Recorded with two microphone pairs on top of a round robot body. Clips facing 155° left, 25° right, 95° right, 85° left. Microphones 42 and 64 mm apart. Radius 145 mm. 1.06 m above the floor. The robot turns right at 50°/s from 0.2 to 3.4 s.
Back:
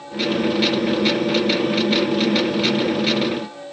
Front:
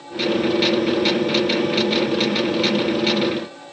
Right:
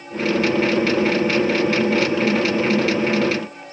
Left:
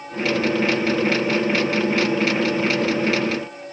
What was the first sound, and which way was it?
Only background noise.